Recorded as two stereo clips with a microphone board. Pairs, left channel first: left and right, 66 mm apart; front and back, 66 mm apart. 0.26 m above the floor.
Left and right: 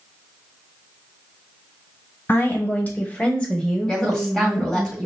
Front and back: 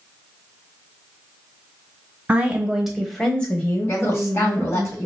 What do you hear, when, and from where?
2.3 s a woman speaking: 120° left, 1.1 m; by 4.9 s 10° right, 1.4 m
3.9 s a woman speaking: 15° left, 1.8 m